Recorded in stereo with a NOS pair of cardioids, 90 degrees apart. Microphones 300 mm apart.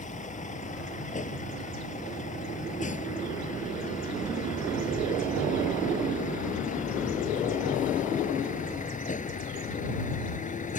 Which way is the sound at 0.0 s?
25° left.